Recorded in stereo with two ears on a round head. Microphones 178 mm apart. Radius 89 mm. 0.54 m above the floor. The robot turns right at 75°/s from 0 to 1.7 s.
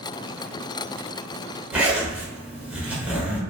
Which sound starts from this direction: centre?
A zipper, at 1.7 s.